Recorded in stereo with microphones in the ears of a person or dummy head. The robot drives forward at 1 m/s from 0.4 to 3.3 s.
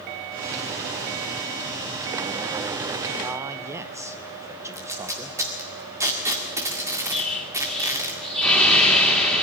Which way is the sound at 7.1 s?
Centre (ahead or behind).